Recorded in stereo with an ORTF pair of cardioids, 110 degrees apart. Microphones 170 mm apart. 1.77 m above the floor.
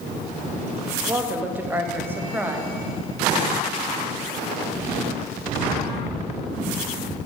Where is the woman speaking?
10° right, 0.7 m.